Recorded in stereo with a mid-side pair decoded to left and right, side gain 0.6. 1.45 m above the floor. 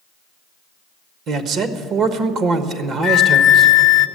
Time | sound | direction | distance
1.3 | a man speaking | 55° right | 1.3 m
3.0 | a flute | 60° left | 0.7 m